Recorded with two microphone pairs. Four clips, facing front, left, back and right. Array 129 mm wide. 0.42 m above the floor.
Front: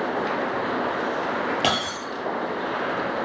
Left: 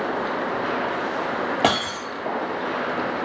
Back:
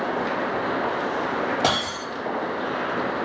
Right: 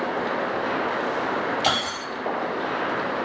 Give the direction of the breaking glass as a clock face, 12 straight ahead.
9 o'clock.